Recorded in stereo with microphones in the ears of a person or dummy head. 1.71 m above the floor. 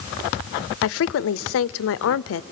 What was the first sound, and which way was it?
A woman speaking, 70° left (ahead or behind).